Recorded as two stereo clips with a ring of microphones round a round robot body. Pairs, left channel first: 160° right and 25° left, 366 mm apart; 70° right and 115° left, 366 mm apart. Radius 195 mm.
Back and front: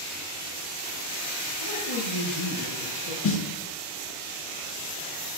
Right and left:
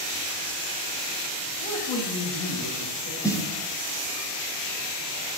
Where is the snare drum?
145° right, 1.2 m.